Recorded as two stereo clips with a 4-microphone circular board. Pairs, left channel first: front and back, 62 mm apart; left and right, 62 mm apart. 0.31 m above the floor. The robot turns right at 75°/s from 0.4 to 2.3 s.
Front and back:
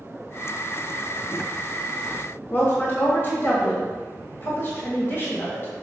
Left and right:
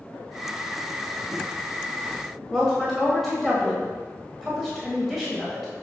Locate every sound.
2.5 s a woman speaking: straight ahead, 1.5 m